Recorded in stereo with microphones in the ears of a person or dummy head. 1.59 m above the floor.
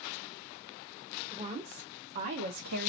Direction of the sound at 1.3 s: 20° right (ahead or behind).